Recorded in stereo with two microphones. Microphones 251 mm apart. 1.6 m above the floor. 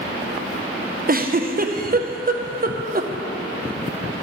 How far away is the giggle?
About 0.7 m.